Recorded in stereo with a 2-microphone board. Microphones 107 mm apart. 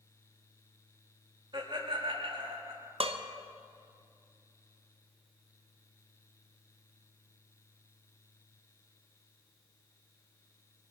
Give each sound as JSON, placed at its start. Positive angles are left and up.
{"t": 1.5, "sound": "laughter", "side_deg": -50, "distance_m": 3.0}
{"t": 3.0, "sound": "dishes clattering", "side_deg": -65, "distance_m": 0.9}